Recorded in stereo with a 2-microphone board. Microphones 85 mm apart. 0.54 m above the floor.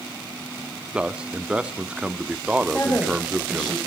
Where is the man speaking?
10° right (ahead or behind), 0.7 m.